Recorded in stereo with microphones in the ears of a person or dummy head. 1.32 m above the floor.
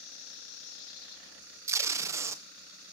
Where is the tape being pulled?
15° right (ahead or behind), 0.6 m.